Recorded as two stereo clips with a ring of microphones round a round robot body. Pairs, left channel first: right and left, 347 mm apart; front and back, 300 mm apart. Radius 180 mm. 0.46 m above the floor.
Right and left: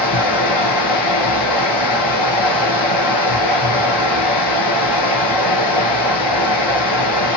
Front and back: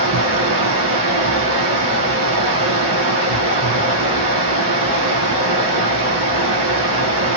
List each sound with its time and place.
0.0 s running water: 130° right, 0.9 m